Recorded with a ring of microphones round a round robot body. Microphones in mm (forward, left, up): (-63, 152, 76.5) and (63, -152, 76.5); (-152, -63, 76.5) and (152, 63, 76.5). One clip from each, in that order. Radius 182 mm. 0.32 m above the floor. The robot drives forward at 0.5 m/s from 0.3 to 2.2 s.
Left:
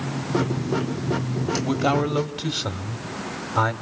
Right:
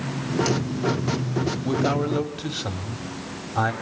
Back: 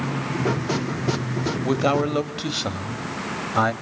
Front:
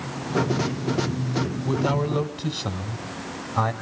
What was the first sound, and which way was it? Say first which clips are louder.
A man speaking: left 2 dB, back 5 dB; 175° right.